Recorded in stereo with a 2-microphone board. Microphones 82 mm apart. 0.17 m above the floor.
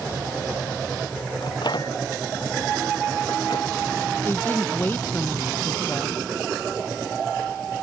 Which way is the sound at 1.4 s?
70° left (ahead or behind).